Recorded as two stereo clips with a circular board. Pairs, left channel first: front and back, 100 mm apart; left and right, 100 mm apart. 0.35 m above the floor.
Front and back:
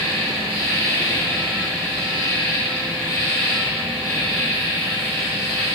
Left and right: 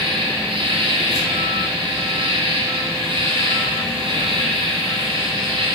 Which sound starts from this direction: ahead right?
An insect, at 0.0 s.